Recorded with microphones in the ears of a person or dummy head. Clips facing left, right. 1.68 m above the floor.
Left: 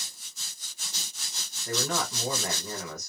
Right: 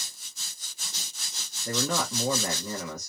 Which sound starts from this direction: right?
A man speaking, at 1.6 s.